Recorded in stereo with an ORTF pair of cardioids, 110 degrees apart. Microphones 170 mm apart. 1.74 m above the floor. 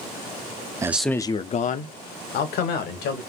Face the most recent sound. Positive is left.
turn(degrees=75)